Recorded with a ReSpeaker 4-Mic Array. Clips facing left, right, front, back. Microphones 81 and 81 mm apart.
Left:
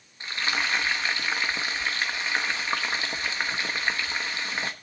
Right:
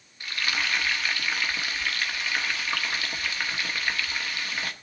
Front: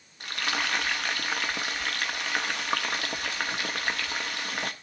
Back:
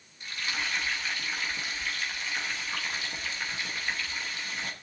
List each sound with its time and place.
0.2 s frying: 25° left, 1.2 m